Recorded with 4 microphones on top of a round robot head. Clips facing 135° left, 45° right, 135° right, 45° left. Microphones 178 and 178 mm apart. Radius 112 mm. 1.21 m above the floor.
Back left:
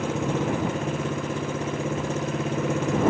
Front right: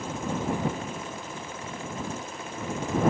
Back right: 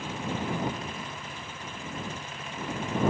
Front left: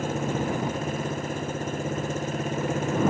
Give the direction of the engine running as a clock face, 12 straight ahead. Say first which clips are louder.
Back left 5 dB, front left 6 dB; 9 o'clock.